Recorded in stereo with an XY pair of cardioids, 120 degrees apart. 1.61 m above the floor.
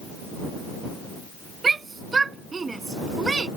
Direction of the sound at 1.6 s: 30° right.